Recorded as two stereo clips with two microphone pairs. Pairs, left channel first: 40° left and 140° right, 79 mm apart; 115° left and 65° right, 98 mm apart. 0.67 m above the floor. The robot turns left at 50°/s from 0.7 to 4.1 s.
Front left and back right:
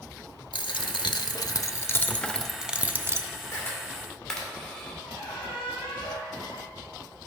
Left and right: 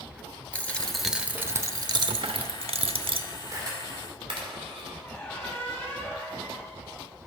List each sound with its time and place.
0.5 s a dropped coin: 35° left, 0.6 m; by 3.3 s 95° right, 0.6 m
3.5 s a camera shutter: 10° right, 2 m; by 4.9 s 40° right, 2 m
5.0 s a squeak: 45° left, 4.5 m